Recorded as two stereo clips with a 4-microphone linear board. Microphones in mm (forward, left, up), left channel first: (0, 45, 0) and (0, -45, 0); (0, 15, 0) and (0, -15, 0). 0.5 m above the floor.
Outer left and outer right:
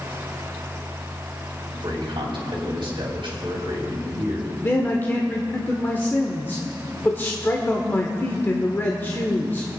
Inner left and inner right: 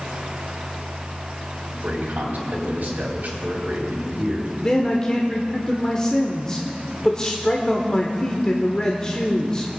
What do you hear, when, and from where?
1.7 s a man speaking: 65° right (ahead or behind), 3 m
4.6 s a man speaking: 25° left (ahead or behind), 1.2 m